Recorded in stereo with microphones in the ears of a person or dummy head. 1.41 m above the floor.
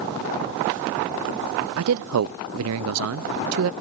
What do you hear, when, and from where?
1.8 s a man speaking: 70° right (ahead or behind), 0.5 m